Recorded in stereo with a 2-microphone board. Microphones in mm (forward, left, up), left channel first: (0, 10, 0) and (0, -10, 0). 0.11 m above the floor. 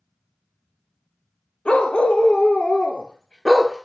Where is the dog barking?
65° left (ahead or behind), 1.7 m; by 3.9 s 5° left (ahead or behind), 1.1 m.